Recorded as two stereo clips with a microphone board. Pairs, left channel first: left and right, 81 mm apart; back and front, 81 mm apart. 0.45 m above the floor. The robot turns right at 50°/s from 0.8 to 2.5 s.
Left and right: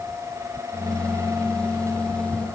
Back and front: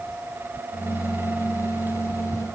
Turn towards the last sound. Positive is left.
No sound to turn to.